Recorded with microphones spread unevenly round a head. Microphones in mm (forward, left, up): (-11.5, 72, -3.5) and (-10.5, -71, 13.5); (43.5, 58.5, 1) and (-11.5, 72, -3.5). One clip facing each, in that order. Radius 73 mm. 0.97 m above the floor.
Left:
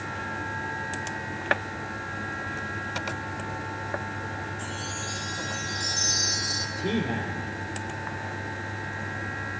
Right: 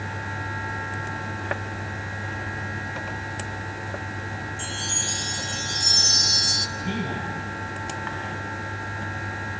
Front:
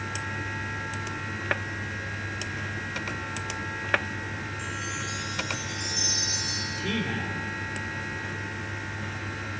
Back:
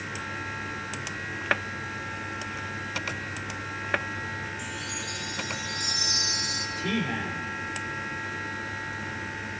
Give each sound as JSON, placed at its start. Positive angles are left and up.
{"t": 4.6, "sound": "a chime", "azimuth_deg": -140, "distance_m": 1.8}
{"t": 6.8, "sound": "a man speaking", "azimuth_deg": 80, "distance_m": 4.0}